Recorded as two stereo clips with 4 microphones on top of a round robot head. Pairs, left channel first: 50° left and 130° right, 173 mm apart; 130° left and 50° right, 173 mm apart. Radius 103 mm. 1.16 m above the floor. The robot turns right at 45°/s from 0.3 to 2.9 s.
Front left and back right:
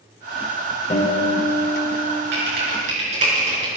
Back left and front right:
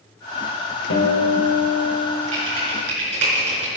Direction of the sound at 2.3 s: 105° right.